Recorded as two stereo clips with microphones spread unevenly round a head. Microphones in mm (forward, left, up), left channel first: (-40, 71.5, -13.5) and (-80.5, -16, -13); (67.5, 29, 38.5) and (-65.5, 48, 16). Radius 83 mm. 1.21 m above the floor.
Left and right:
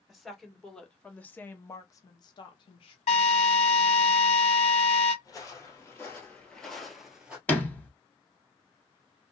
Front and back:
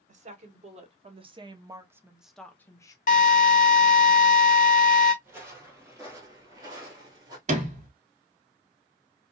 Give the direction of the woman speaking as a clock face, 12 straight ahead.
7 o'clock.